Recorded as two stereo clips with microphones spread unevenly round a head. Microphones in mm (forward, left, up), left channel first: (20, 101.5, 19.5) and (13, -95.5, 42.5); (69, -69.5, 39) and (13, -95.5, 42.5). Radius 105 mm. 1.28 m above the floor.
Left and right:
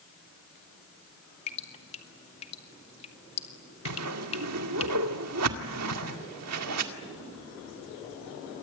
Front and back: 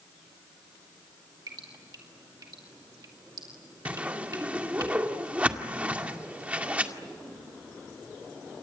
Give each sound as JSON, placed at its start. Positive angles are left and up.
{"t": 1.5, "sound": "dripping", "azimuth_deg": 150, "distance_m": 2.0}
{"t": 3.9, "sound": "a whoosh", "azimuth_deg": -85, "distance_m": 2.0}